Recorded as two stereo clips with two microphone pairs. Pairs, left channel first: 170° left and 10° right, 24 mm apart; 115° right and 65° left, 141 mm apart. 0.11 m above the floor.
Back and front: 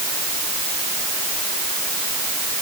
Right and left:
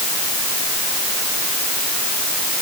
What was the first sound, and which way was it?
Only background noise.